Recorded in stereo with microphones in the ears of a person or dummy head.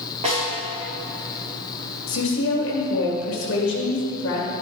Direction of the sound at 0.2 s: 35° right (ahead or behind).